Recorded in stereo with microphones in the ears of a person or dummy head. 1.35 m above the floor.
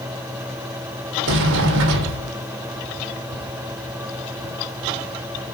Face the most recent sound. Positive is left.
turn(degrees=-70)  # may be behind; listen again after turning